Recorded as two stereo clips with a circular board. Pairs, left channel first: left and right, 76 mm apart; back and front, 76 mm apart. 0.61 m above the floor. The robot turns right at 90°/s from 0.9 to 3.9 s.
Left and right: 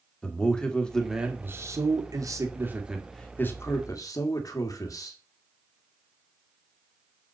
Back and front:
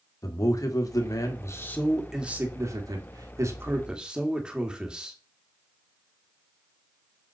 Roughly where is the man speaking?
Behind.